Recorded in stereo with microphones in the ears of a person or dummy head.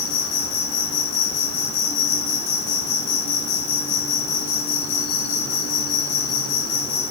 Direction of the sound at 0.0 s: 80° left.